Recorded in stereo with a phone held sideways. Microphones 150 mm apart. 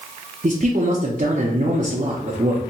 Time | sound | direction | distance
0.4 | a man speaking | 55° right (ahead or behind) | 0.6 m